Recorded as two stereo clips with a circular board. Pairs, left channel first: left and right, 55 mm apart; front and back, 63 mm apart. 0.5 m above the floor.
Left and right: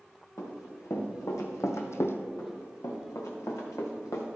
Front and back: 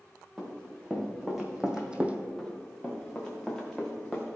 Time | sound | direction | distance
0.4 | running footsteps | 90° left | 3.5 m
2.4 | running footsteps | 85° left | 3 m